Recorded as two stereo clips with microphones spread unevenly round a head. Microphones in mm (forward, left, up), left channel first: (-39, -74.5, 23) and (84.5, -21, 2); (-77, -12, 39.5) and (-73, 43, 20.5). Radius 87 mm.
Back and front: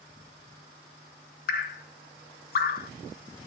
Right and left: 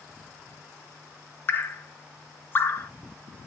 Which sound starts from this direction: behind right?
Dripping, at 1.5 s.